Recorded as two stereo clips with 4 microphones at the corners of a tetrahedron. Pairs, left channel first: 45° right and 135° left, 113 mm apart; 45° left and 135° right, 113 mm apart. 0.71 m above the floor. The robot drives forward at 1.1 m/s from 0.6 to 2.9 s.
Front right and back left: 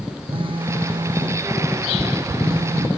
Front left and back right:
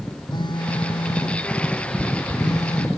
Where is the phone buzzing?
95° left; by 2.9 s 100° left.